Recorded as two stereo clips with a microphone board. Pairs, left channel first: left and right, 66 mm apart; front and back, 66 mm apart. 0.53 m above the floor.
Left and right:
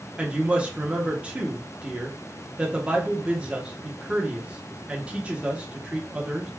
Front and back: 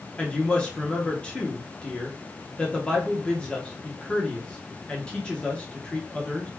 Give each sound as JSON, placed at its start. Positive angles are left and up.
{"t": 0.2, "sound": "a woman speaking", "azimuth_deg": -50, "distance_m": 0.7}